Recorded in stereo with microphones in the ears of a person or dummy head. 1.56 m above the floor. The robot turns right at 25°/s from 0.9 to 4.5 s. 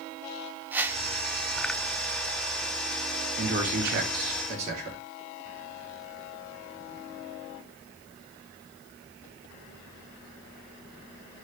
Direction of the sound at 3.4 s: 70° right (ahead or behind).